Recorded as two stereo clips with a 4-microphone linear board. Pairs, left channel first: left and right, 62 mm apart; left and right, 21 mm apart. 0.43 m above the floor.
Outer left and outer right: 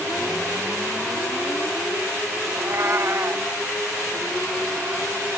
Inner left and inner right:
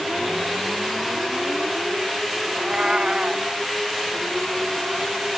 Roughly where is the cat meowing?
Right.